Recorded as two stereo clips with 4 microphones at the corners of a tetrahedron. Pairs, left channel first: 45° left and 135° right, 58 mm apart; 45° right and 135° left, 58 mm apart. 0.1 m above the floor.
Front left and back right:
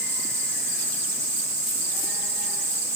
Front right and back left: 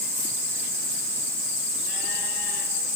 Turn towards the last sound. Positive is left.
No sound to turn to.